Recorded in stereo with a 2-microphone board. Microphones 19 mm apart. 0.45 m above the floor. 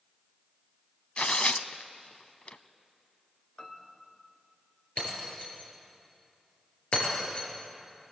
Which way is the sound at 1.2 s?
80° left.